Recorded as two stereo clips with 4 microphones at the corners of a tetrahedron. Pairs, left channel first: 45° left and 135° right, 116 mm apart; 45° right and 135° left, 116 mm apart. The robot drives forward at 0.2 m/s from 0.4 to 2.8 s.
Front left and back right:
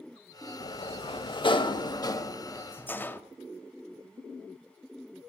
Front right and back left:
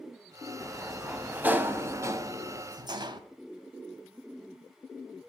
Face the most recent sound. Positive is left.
turn(degrees=110)